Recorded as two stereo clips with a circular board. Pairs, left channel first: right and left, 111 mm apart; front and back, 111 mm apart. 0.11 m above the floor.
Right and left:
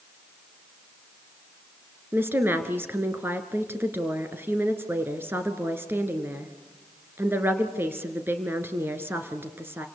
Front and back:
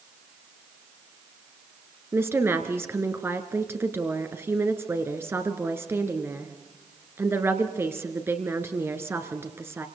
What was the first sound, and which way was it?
A woman speaking, 140° left.